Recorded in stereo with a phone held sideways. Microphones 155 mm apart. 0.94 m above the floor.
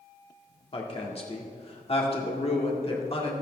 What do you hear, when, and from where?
0.7 s a woman speaking: 40° left (ahead or behind), 1.7 m